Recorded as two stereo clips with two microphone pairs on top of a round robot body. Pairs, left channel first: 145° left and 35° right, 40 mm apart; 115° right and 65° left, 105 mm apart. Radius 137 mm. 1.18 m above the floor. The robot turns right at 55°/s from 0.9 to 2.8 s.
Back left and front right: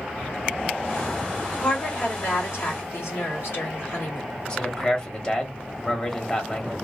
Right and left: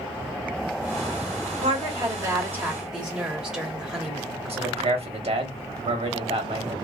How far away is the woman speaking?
About 1.4 m.